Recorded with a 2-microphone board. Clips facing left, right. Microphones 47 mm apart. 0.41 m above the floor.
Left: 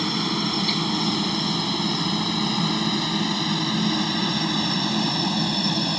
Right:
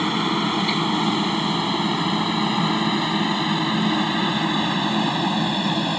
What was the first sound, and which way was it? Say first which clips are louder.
A helicopter: right 4 dB; 20° right (ahead or behind).